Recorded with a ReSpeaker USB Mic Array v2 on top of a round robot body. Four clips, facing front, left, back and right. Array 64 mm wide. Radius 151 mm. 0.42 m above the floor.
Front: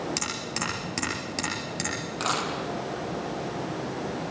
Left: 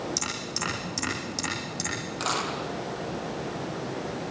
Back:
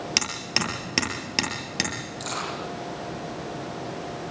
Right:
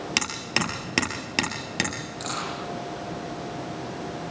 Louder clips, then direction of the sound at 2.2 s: Left 3 dB, front 4 dB; 30° left.